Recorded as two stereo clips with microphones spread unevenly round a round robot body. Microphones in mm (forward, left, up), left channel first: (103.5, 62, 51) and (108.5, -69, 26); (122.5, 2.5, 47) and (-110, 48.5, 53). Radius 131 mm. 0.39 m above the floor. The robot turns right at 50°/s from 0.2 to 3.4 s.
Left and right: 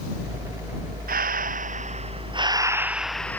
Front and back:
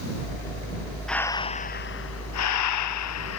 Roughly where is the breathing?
Right.